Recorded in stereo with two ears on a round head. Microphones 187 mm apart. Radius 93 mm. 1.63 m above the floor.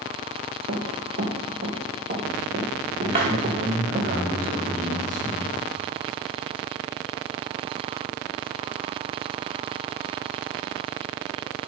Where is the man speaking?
60° right (ahead or behind), 4.5 m.